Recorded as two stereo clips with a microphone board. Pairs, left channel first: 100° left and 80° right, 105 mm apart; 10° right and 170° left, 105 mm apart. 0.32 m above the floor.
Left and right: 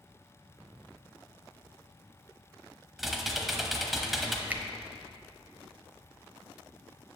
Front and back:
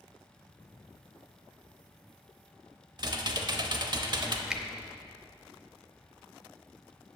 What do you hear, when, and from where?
3.0 s typing on a keyboard: 165° right, 0.8 m
4.5 s a finger snap: 120° right, 0.7 m